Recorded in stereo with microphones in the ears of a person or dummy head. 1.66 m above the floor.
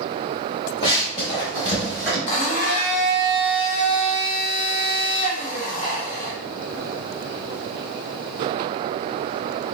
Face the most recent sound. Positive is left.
turn(degrees=35)  # may be behind; listen again after turning